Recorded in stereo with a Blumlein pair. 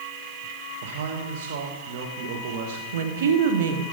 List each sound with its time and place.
0.8 s a man speaking: 55° right, 1.6 m
2.9 s a woman speaking: 60° right, 1.4 m